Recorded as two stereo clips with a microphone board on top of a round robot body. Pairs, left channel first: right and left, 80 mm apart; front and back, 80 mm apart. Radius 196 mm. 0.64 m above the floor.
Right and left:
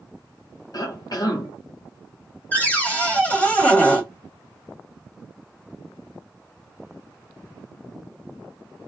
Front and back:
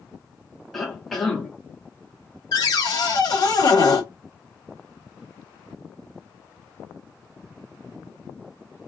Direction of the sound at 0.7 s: 90° right.